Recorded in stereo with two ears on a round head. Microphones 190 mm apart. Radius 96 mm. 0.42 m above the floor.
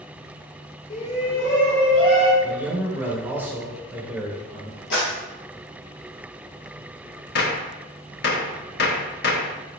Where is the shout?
30° left (ahead or behind), 1.1 m.